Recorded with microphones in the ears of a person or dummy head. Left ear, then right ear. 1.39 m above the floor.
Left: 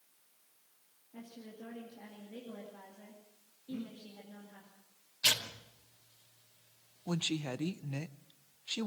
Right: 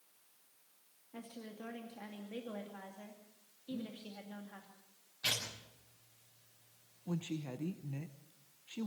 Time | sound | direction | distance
1.1 | a woman speaking | 30° right (ahead or behind) | 2.5 m
3.7 | breathing | 60° left (ahead or behind) | 3.5 m
5.2 | tearing paper | 35° left (ahead or behind) | 4.5 m
7.1 | a woman speaking | 45° left (ahead or behind) | 0.6 m